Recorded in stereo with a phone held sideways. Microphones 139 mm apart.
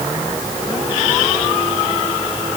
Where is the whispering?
No whispering in this recording.